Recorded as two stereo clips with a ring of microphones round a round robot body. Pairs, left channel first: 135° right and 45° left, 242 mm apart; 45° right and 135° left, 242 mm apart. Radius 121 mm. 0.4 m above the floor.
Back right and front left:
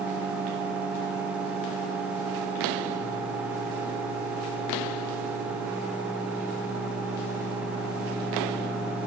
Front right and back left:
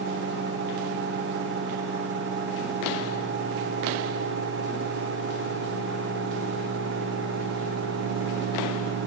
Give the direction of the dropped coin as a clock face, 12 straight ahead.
I don't hear a dropped coin.